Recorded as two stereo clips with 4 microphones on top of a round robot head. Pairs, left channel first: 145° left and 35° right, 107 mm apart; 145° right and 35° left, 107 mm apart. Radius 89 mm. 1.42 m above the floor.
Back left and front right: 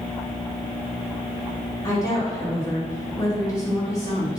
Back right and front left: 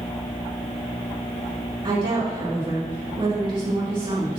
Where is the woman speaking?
85° left, 3.5 m.